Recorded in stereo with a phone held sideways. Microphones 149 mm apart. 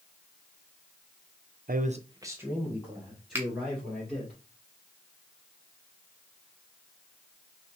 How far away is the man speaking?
About 0.5 m.